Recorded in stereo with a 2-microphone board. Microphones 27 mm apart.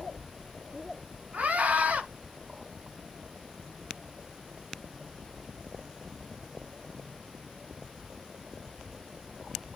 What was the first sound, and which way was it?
A scream, 85° right.